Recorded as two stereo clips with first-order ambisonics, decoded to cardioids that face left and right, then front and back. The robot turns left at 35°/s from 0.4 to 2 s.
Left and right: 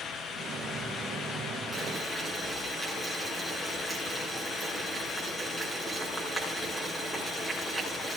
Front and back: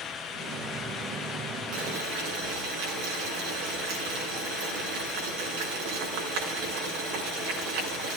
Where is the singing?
No singing in this recording.